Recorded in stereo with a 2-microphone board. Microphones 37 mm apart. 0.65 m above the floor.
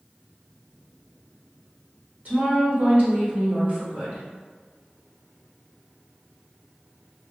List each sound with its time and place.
2.2 s a woman speaking: 45° right (ahead or behind), 1.2 m